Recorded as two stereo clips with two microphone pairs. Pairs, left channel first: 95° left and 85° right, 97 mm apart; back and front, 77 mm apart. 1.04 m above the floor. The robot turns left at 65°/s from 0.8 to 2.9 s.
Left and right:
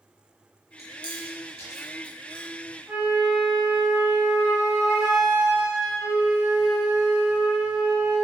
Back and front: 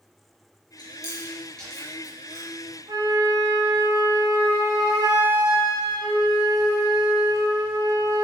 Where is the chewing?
155° left, 5 m; by 2.5 s 45° left, 5 m.